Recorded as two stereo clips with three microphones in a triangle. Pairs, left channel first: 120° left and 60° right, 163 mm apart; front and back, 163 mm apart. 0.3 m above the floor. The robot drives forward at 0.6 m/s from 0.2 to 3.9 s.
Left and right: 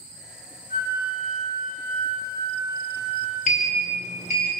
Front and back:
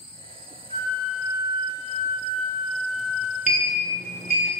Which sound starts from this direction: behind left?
A sliding door, at 3.5 s.